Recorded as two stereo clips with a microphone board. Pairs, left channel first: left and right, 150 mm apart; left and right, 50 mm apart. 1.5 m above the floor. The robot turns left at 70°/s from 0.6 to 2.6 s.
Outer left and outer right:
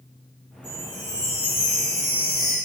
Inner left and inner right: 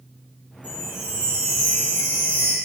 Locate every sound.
0.6 s a chime: 145° left, 2 m; by 2.6 s 15° left, 2 m